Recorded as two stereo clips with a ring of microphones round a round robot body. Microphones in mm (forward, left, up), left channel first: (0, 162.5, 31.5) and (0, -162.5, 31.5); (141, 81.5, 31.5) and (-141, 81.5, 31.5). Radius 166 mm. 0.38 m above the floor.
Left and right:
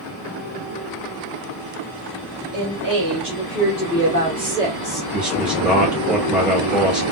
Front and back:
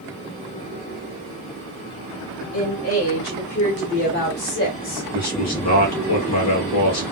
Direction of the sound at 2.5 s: 50° right.